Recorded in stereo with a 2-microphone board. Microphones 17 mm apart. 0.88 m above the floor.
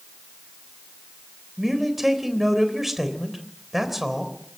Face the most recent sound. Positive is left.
turn(degrees=-20)  # may be behind; listen again after turning